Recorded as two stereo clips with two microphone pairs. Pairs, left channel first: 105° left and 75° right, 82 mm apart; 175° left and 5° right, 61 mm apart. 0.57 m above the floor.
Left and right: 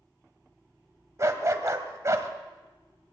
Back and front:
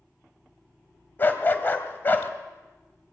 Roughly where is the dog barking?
Behind right.